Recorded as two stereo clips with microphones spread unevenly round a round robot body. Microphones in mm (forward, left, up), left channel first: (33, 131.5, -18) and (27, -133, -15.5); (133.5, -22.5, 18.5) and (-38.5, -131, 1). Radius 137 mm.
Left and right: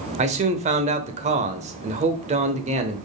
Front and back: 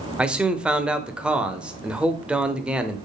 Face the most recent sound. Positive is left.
turn(degrees=-80)